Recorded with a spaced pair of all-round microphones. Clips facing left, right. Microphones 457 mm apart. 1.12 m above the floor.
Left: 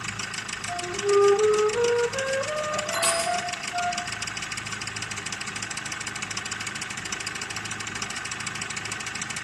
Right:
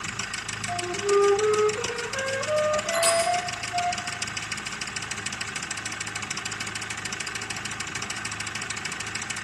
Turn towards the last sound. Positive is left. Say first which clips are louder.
# right 4 dB
turn(degrees=70)  # may be behind; listen again after turning